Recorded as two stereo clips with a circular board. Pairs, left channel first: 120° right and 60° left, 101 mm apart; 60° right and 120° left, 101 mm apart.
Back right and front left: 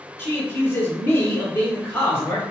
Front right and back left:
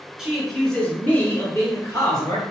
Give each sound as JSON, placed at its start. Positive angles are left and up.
{"t": 0.2, "sound": "a man speaking", "azimuth_deg": -160, "distance_m": 1.2}